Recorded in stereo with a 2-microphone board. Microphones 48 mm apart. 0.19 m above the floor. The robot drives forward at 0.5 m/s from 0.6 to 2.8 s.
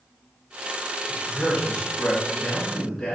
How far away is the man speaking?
About 2.0 m.